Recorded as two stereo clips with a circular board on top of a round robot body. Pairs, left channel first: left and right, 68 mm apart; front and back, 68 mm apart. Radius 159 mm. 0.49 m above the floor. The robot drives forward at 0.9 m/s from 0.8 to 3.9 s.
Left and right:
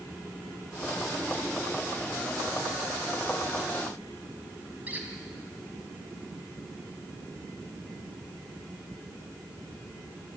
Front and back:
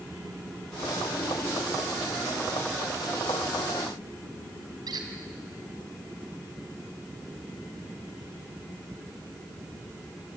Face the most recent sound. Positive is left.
turn(degrees=-160)